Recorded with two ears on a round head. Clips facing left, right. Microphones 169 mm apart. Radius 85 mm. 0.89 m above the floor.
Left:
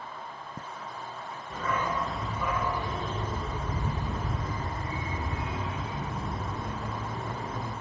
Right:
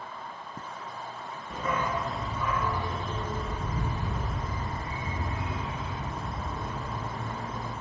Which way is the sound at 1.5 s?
20° right (ahead or behind).